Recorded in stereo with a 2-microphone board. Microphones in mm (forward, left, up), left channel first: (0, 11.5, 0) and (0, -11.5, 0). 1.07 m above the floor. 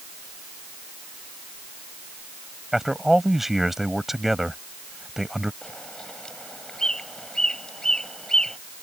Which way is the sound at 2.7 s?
10° right (ahead or behind).